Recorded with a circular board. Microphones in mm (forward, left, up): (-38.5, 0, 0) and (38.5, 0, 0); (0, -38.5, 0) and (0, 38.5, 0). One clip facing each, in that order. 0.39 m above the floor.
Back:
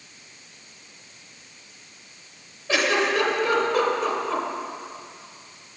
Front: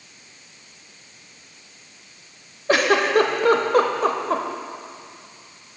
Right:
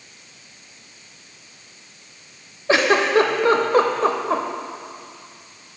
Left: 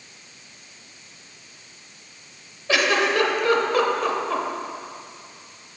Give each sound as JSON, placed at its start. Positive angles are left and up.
{"t": 2.7, "sound": "a giggle", "azimuth_deg": -35, "distance_m": 0.6}